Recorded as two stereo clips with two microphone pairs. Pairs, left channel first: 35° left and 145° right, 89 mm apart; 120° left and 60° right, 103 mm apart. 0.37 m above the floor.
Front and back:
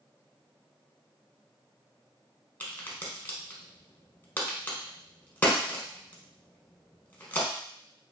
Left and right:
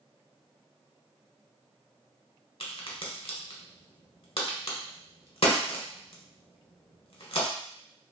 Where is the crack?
105° left, 1.0 m.